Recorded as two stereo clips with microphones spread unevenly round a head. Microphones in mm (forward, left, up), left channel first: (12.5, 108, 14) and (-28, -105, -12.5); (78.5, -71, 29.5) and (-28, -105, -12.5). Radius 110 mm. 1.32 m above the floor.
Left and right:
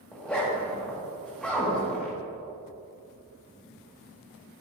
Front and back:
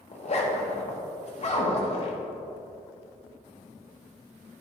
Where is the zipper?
10° right, 2.0 m.